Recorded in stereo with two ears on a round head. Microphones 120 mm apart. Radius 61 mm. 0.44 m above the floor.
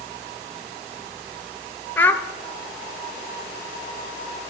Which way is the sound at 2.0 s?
15° left (ahead or behind).